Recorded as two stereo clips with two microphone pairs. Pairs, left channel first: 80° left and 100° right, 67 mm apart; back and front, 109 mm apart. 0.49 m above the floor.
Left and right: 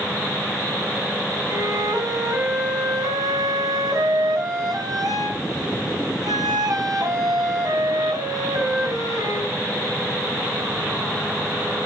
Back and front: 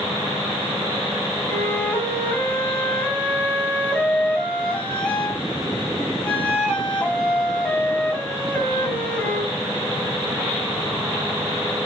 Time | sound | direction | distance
1.5 | a flute | 100° right | 3 m